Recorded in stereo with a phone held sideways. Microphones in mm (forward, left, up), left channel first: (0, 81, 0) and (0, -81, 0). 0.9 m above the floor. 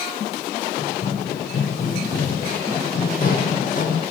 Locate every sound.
0.8 s running footsteps: 65° left (ahead or behind), 2 m; by 4.0 s 50° left (ahead or behind), 3 m